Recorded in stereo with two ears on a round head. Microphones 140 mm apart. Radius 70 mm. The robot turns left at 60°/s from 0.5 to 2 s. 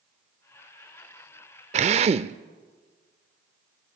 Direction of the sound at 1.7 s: 40° right (ahead or behind).